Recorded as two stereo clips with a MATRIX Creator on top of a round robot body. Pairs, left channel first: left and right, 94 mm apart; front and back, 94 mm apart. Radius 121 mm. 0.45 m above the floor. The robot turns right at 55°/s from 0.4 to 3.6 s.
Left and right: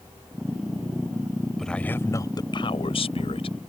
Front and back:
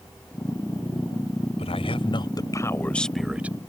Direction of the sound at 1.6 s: 5° left.